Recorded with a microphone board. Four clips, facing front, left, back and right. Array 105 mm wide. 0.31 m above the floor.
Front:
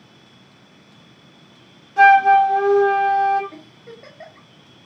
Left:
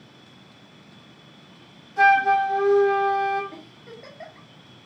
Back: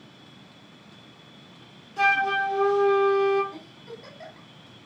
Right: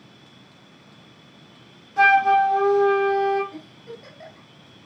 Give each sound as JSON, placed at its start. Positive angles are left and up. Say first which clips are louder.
{"t": 2.0, "sound": "a flute", "louder": "right 1 dB, front 13 dB", "azimuth_deg": -25, "distance_m": 1.5}
{"t": 3.5, "sound": "a giggle", "louder": "right 3 dB, front 1 dB", "azimuth_deg": 35, "distance_m": 1.6}